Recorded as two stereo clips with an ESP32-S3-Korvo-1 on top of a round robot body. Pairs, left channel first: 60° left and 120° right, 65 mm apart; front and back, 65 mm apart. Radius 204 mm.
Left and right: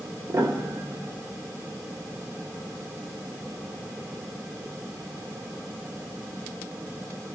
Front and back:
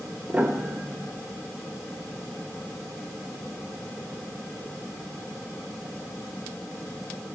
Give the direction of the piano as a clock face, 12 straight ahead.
4 o'clock.